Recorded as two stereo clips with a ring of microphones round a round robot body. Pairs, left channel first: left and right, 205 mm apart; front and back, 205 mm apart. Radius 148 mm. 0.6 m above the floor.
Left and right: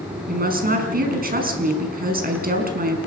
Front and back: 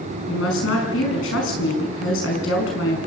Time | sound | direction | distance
0.3 | a woman speaking | 45° right | 5.5 m